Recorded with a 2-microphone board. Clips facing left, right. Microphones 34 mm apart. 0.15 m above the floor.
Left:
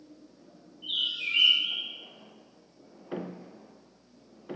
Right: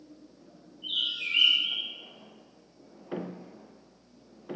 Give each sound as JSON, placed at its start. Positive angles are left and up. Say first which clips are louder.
{"t": 0.8, "sound": "a bird", "louder": "even", "side_deg": 5, "distance_m": 0.8}